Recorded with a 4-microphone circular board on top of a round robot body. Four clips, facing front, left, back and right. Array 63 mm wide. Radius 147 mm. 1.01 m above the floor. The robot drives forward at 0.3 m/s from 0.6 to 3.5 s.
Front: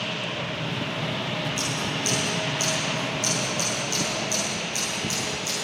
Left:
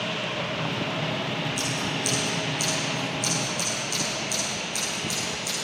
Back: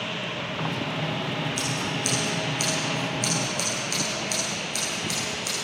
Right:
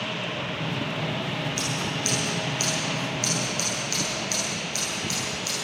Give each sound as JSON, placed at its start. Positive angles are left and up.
{"t": 1.6, "sound": "scissors", "azimuth_deg": -155, "distance_m": 9.0}